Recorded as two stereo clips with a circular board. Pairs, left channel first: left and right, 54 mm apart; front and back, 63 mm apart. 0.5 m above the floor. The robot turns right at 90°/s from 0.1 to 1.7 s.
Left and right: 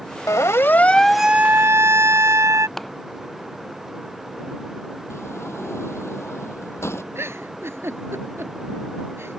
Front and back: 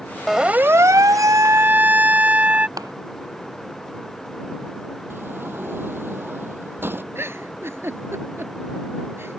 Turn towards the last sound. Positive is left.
turn(degrees=-130)